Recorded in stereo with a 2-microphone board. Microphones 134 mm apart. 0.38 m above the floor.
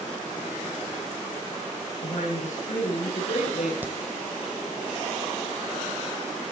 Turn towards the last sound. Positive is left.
turn(degrees=-15)  # may be behind; listen again after turning